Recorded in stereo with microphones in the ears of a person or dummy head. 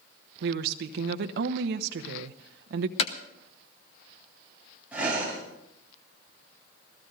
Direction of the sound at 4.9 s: 10° right (ahead or behind).